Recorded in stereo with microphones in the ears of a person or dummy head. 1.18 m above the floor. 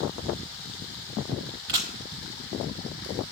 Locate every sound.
1.7 s a camera shutter: 20° right (ahead or behind), 0.5 m